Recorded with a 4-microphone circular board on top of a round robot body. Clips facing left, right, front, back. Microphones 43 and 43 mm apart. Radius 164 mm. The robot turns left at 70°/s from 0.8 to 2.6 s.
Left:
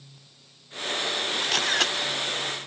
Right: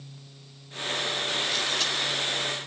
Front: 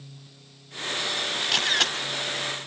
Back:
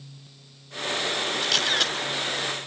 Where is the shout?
No shout in this recording.